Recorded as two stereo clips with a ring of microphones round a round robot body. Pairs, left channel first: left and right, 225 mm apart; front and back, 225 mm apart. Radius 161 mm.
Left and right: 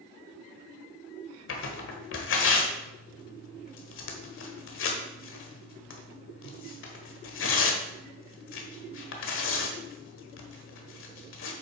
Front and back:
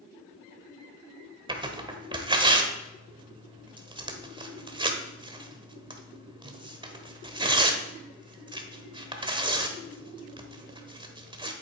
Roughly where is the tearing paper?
Behind left.